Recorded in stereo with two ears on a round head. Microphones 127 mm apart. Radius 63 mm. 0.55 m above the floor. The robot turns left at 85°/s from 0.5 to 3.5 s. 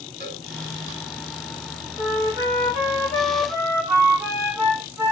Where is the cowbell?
70° right (ahead or behind), 4.5 m.